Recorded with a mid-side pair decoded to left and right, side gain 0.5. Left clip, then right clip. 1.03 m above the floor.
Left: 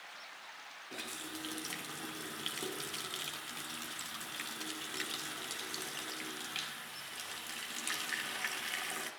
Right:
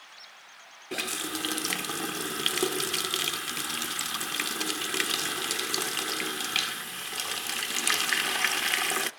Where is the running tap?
65° right, 0.6 m.